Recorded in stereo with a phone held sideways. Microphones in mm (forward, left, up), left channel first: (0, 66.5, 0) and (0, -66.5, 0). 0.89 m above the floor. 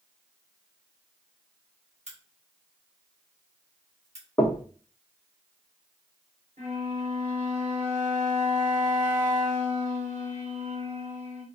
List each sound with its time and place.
2.1 s a crack: 55° right (ahead or behind), 1.2 m
4.4 s knocking: 25° left (ahead or behind), 0.5 m
6.6 s a flute: 65° right (ahead or behind), 1.5 m